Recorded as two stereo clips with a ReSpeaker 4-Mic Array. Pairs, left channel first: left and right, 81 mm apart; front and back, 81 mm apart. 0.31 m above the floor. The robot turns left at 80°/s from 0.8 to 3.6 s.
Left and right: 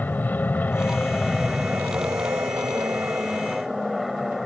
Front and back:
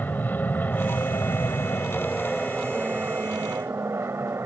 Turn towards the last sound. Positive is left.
turn(degrees=180)